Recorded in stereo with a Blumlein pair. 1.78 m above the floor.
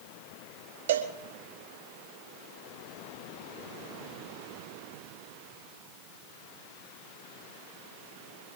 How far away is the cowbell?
About 1.6 m.